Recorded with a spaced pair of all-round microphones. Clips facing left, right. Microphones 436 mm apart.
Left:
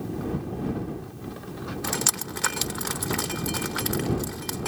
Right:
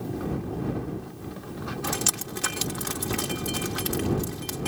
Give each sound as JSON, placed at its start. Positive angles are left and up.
{"t": 1.8, "sound": "dripping", "side_deg": -50}